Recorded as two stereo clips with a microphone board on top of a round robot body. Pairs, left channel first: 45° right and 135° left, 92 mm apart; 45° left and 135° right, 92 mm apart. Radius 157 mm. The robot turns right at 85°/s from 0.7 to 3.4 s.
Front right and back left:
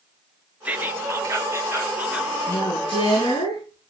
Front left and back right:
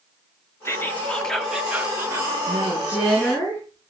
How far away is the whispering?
About 1.4 m.